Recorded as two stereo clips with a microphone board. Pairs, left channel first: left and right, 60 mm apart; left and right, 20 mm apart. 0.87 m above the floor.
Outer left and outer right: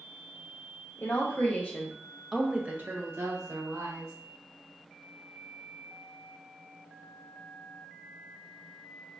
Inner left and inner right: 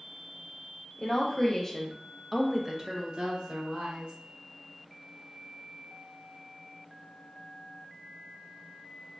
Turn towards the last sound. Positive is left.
turn(degrees=-65)  # may be behind; listen again after turning